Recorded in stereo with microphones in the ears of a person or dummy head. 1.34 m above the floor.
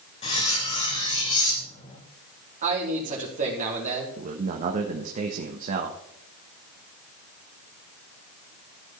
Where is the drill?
No drill in this recording.